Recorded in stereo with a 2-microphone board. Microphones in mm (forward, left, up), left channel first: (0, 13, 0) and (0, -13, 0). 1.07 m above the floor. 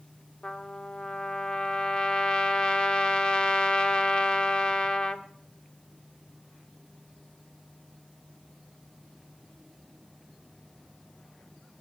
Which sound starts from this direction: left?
A trumpet, at 0.4 s.